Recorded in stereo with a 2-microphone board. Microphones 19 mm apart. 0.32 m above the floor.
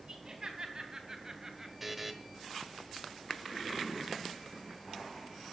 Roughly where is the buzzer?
Centre.